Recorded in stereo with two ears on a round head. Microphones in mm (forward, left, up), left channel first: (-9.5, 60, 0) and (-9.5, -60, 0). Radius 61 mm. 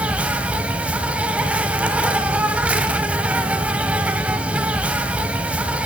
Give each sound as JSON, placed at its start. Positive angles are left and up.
{"t": 0.0, "sound": "an insect", "side_deg": -10, "distance_m": 1.2}